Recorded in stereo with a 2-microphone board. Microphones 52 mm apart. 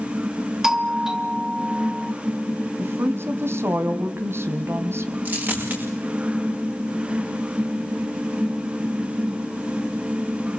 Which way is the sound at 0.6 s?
10° right (ahead or behind).